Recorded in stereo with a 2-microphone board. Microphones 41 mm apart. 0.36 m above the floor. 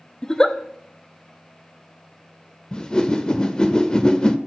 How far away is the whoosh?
About 0.6 m.